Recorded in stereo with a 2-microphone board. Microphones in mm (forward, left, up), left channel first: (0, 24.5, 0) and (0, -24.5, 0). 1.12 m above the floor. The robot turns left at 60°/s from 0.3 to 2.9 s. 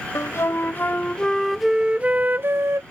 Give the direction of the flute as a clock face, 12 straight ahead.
10 o'clock.